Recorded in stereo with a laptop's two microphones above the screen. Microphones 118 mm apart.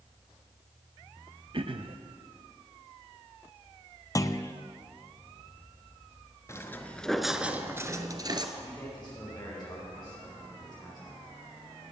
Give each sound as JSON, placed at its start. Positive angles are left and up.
{"t": 1.5, "sound": "throat clearing", "side_deg": -50, "distance_m": 0.5}
{"t": 4.2, "sound": "a clunk", "side_deg": 30, "distance_m": 0.5}
{"t": 6.5, "sound": "footsteps", "side_deg": 25, "distance_m": 0.9}
{"t": 8.6, "sound": "a man speaking", "side_deg": 40, "distance_m": 5.0}